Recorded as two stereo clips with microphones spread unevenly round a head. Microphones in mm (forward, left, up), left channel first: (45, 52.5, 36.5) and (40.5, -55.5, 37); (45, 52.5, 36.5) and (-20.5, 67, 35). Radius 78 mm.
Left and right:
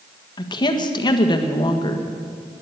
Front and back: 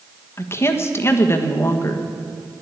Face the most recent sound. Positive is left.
turn(degrees=40)